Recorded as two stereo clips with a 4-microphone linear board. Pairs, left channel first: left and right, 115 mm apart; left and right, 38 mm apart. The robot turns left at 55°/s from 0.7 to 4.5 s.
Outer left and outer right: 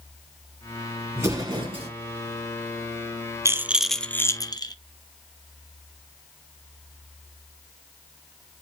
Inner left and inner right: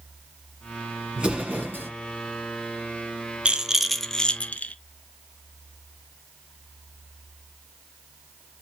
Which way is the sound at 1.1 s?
20° right.